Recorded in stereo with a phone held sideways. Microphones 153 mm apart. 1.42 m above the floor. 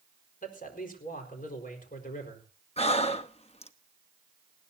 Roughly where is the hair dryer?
I don't hear a hair dryer.